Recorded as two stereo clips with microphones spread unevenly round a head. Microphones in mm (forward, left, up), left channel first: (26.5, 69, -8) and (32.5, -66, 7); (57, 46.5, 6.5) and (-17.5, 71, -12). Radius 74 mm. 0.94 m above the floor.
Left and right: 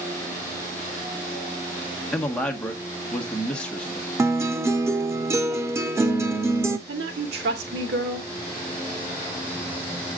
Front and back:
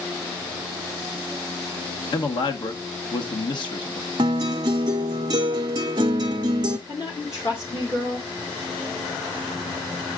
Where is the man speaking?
10° left, 1.4 m.